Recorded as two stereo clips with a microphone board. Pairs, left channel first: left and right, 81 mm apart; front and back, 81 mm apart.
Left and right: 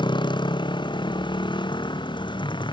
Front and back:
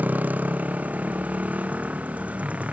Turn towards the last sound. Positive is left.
turn(degrees=105)